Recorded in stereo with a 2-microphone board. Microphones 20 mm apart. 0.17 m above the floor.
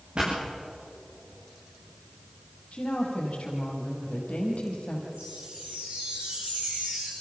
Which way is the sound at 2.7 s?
75° left (ahead or behind).